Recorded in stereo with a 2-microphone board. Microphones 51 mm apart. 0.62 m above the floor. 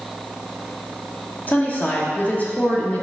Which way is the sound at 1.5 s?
35° left (ahead or behind).